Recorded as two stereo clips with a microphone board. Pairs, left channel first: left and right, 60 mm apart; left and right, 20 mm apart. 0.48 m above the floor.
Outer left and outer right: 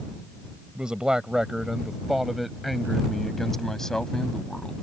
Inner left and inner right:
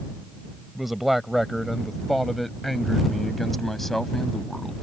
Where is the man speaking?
15° right (ahead or behind); by 4.7 s 10° left (ahead or behind).